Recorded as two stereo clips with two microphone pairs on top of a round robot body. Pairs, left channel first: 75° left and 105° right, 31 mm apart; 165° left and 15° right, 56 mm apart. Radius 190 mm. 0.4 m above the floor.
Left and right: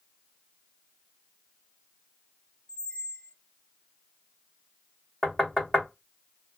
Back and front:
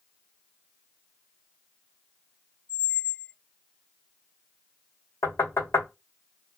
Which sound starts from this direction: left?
A squeak, at 2.7 s.